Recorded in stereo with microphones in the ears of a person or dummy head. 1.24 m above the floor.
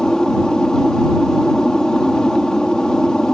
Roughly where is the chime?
No chime in this recording.